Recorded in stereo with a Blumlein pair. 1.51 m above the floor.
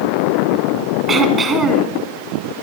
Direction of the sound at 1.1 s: 15° right.